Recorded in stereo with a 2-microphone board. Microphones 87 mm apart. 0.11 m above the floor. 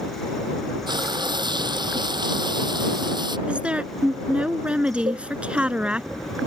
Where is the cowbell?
65° right (ahead or behind).